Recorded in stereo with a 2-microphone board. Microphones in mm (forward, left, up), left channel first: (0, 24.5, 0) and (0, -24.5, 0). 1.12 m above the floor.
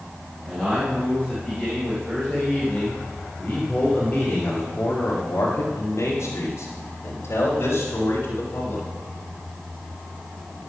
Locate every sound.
0.5 s a man speaking: 5° right (ahead or behind), 6 m; by 8.8 s 50° left (ahead or behind), 4.5 m